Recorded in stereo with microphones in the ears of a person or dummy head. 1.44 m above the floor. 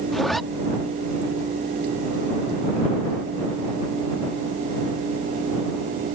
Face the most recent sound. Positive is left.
turn(degrees=5)  # may be behind; listen again after turning